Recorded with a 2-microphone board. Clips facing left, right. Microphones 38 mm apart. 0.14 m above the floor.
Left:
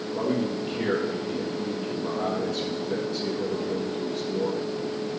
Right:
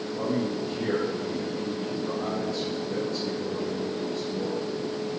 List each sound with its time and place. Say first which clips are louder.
0.1 s a man speaking: left 2 dB; 65° left (ahead or behind), 3.5 m